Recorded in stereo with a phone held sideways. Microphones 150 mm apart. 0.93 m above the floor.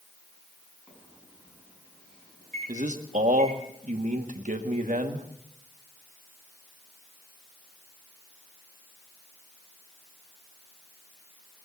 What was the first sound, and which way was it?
A microwave, 5° left (ahead or behind).